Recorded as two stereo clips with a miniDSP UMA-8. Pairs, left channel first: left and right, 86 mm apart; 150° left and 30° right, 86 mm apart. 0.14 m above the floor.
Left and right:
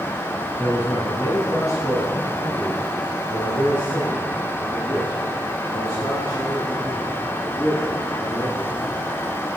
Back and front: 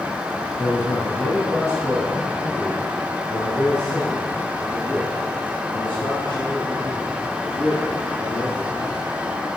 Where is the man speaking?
130° left, 1.0 m; by 8.8 s 95° left, 5.5 m.